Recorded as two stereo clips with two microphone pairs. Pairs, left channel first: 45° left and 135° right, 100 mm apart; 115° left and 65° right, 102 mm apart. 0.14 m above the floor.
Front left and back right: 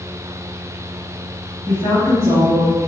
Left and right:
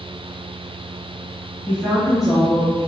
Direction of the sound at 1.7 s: Straight behind.